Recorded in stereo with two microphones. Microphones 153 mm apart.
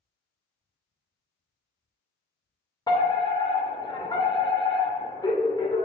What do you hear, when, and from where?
2.9 s a fire alarm: 30° left (ahead or behind), 2 m